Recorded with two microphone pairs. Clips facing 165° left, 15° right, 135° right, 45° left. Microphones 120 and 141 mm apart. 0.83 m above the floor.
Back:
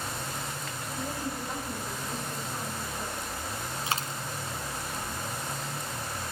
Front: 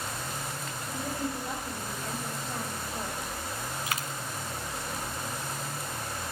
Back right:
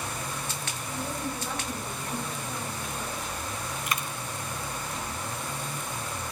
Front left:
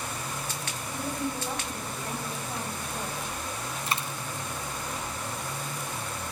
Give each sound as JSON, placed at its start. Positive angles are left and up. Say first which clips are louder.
{"t": 0.9, "sound": "a woman speaking", "louder": "front 2 dB, front left 2 dB", "azimuth_deg": -30, "distance_m": 6.0}
{"t": 3.9, "sound": "a dropped coin", "louder": "back 5 dB, front left 1 dB", "azimuth_deg": 105, "distance_m": 1.6}